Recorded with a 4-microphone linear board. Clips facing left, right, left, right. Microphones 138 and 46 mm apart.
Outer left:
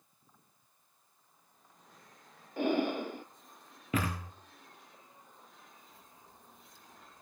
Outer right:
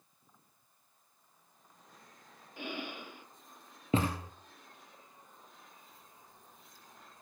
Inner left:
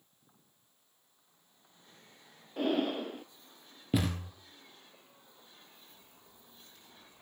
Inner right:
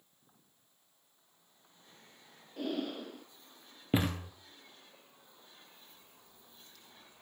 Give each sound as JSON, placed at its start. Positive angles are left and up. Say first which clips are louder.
{"t": 2.6, "sound": "breathing", "louder": "outer left 12 dB, inner left 6 dB", "side_deg": 45, "distance_m": 0.6}
{"t": 3.9, "sound": "a thud", "louder": "outer right 3 dB, inner right 1 dB", "side_deg": -25, "distance_m": 2.5}
{"t": 5.9, "sound": "a crack", "louder": "outer left 1 dB, inner left 1 dB", "side_deg": 25, "distance_m": 4.0}